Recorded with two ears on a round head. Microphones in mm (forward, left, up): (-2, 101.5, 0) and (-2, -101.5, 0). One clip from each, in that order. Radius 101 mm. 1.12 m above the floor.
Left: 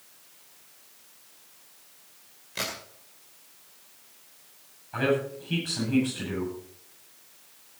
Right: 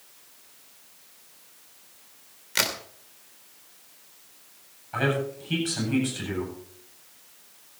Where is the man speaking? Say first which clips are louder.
Even; 20° right (ahead or behind), 9 m.